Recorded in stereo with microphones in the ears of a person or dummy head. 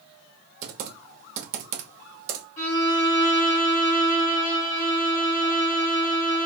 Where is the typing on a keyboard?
40° right (ahead or behind), 0.9 m.